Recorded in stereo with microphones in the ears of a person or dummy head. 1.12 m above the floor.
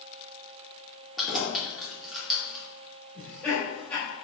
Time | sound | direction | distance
1.2 | keys jangling | 5° right (ahead or behind) | 2 m
3.1 | laughter | 10° left (ahead or behind) | 2.5 m